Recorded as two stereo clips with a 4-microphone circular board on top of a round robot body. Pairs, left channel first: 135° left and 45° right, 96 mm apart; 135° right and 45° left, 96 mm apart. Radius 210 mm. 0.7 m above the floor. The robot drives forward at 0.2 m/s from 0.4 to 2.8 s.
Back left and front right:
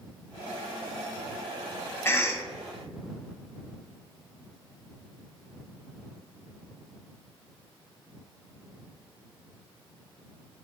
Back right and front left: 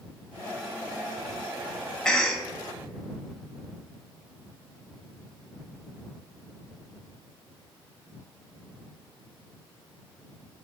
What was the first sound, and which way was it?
A cough, 155° left.